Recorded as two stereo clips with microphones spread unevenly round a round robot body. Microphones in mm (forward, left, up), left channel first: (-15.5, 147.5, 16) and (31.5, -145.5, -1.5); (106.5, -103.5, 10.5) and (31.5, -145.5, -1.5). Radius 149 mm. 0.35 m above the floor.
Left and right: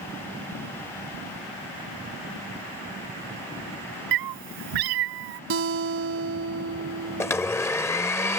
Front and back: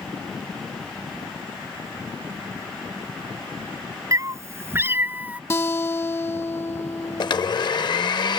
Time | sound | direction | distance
4.1 | a cat meowing | 95° right | ?
5.5 | a guitar | 35° right | ?
7.2 | a blender | 15° left | ?